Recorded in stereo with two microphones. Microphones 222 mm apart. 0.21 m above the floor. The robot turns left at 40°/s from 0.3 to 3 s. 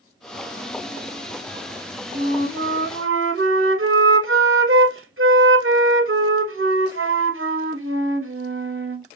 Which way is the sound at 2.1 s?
70° right.